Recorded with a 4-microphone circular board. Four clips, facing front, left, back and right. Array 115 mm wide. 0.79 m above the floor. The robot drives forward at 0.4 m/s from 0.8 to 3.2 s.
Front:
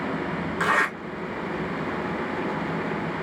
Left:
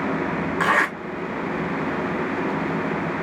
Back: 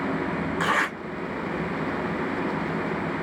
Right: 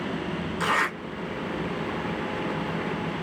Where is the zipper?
85° left, 1.9 m.